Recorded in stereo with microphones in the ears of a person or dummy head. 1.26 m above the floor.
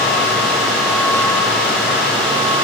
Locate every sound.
Only background noise.